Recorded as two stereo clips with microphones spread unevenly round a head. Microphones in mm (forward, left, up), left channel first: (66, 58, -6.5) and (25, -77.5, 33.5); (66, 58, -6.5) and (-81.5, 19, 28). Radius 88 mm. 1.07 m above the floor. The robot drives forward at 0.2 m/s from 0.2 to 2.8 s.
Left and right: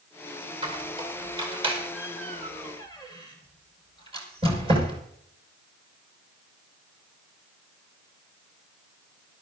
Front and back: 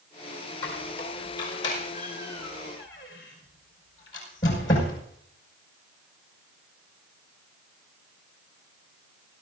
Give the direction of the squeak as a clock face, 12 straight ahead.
2 o'clock.